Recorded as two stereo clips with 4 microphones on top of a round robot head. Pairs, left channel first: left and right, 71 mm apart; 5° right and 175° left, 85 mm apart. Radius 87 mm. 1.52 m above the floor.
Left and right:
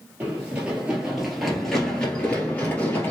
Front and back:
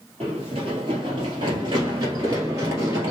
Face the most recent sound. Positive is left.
turn(degrees=130)